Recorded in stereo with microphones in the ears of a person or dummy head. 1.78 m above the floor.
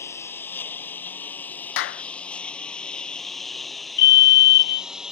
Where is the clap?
65° left (ahead or behind).